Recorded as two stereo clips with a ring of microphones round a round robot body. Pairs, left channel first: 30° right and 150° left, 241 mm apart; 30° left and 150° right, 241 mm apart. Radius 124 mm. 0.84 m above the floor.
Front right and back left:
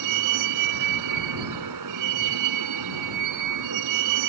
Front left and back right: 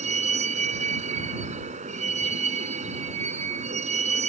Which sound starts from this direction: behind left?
A vehicle, at 0.0 s.